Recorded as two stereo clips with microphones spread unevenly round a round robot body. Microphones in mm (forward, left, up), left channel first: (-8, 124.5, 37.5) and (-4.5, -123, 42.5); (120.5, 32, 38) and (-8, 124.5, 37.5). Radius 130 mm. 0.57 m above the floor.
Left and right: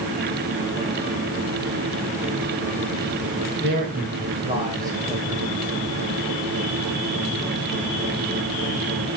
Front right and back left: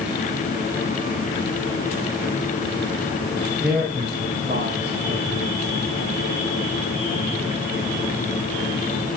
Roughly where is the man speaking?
Behind right.